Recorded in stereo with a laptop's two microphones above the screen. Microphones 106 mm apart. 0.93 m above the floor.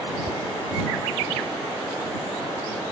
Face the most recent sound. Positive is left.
turn(degrees=-85)